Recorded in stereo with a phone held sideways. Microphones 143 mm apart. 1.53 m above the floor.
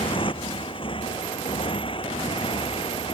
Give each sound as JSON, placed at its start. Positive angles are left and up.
{"t": 0.0, "sound": "a motorcycle", "side_deg": 35}